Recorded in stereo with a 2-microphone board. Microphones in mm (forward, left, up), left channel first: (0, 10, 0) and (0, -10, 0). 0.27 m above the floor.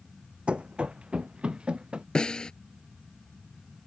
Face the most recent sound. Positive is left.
turn(degrees=55)  # may be behind; listen again after turning